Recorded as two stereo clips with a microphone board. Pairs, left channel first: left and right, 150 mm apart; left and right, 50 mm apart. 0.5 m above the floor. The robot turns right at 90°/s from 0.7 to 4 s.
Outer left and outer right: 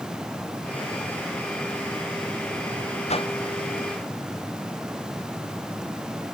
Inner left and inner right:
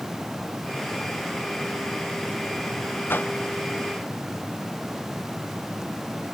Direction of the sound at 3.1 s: 45° left (ahead or behind).